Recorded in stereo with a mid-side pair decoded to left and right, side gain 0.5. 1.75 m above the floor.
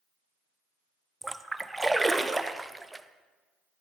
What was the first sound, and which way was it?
A splash, 10° right.